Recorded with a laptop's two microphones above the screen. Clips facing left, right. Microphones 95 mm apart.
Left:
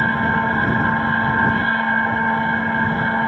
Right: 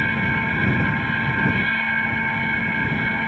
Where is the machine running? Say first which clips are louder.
Left 5 dB; 35° left (ahead or behind).